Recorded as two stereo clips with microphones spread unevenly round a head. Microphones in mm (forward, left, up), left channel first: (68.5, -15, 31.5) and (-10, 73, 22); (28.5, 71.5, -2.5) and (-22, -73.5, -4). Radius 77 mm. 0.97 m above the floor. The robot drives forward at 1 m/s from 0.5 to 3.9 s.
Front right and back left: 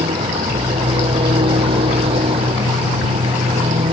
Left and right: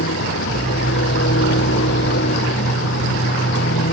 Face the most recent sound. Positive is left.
turn(degrees=95)